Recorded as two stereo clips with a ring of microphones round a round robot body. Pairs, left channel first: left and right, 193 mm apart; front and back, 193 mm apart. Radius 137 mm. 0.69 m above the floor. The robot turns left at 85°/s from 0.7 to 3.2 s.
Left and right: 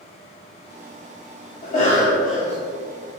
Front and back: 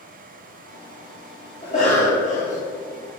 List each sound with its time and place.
1.6 s a cough: 60° left, 2 m; by 2.6 s 20° right, 2 m